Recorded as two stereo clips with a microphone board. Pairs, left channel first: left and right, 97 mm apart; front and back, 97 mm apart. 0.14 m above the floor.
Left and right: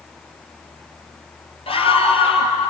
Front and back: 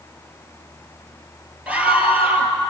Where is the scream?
105° left, 3 m.